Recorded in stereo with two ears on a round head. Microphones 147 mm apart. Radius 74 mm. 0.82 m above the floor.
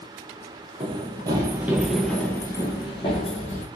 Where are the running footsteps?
40° right (ahead or behind), 1.0 m; by 3.7 s 50° left (ahead or behind), 1.2 m.